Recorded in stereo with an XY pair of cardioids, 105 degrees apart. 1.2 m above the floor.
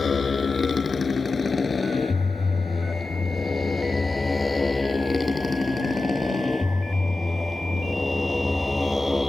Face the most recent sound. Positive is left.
turn(degrees=5)